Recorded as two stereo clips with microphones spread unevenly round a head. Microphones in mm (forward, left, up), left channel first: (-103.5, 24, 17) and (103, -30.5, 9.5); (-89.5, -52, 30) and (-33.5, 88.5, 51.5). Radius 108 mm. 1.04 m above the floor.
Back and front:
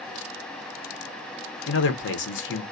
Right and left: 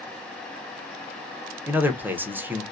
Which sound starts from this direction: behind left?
A man speaking, at 1.7 s.